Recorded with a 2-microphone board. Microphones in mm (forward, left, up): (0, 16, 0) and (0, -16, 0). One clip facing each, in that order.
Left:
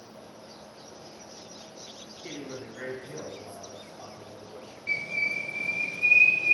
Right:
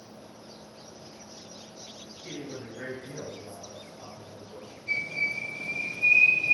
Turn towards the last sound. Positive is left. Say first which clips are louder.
# left 1 dB
turn(degrees=70)  # may be behind; listen again after turning